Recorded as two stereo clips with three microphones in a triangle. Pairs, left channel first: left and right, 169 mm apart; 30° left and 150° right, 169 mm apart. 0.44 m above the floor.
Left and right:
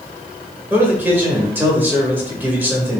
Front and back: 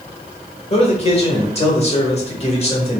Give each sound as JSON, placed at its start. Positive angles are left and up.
{"t": 0.7, "sound": "a man speaking", "azimuth_deg": -15, "distance_m": 1.2}